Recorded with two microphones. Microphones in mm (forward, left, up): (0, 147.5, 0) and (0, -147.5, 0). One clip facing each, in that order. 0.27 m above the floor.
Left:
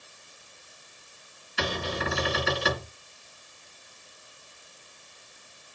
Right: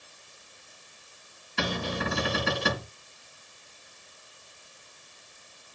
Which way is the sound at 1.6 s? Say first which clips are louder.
Even; 60° right (ahead or behind).